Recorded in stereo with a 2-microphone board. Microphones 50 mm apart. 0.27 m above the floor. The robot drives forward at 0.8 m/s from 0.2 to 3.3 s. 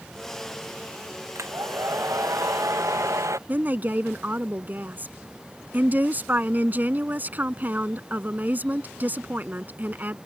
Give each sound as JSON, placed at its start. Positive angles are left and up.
{"t": 1.4, "sound": "a hair dryer", "side_deg": -80}
{"t": 3.5, "sound": "a woman speaking", "side_deg": -35}